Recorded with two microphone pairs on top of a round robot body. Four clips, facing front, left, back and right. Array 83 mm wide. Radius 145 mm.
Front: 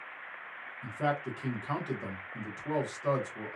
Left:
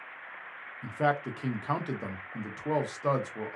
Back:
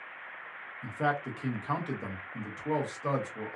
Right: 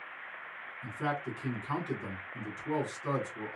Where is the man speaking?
105° left, 1.0 m.